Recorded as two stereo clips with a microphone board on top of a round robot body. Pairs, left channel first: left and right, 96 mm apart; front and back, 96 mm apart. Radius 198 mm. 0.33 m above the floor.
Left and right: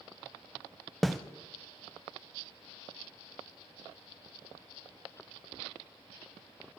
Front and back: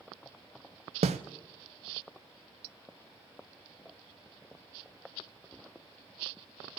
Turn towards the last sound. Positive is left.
turn(degrees=180)